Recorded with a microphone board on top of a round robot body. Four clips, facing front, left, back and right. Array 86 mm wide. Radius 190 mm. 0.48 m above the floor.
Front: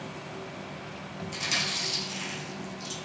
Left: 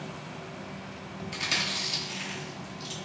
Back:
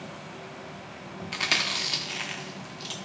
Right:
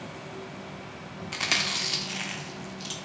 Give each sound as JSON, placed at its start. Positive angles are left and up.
{"t": 1.3, "sound": "chewing", "azimuth_deg": -140, "distance_m": 0.9}